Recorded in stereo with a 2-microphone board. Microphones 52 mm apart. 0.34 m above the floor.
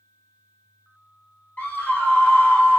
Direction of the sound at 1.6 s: 35° left (ahead or behind).